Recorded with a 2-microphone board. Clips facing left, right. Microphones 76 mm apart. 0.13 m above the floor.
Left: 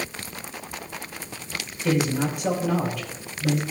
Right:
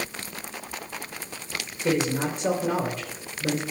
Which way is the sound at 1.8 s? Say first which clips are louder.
Left 1 dB; 35° right (ahead or behind).